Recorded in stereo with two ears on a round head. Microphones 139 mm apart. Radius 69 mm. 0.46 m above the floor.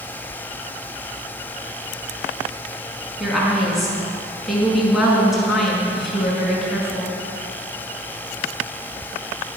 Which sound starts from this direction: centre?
A woman speaking, at 3.2 s.